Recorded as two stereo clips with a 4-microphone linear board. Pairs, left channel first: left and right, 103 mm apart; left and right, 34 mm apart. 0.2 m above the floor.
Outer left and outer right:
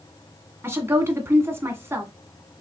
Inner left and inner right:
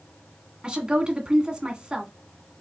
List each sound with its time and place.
0.6 s a woman speaking: 25° right (ahead or behind), 1.5 m